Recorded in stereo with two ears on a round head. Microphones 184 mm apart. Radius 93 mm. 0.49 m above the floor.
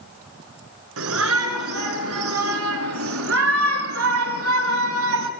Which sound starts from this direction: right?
A shout, at 1.0 s.